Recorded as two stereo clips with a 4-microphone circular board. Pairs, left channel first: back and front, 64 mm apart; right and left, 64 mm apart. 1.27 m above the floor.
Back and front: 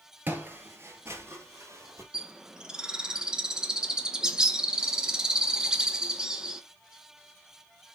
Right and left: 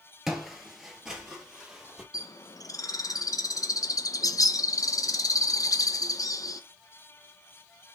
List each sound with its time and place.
0.3 s footsteps: 10° left, 1.4 m
2.1 s a bird: 80° right, 0.7 m